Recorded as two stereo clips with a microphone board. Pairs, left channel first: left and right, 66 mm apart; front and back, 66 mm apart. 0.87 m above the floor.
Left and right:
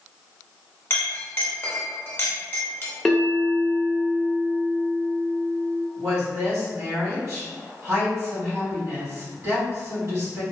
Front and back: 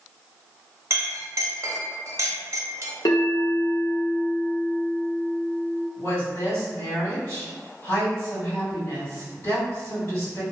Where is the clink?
145° left, 0.7 m.